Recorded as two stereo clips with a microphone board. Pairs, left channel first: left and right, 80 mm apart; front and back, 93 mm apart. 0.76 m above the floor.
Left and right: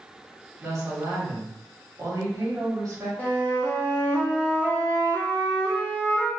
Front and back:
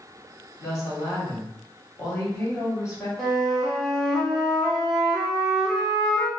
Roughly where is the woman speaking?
Ahead right.